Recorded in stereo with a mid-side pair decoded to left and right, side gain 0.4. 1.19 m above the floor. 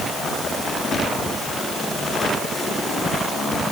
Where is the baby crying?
No baby crying in this recording.